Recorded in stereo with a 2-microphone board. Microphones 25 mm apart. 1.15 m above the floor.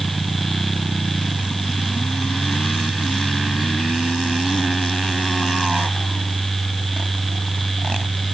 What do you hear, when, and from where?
Only background noise.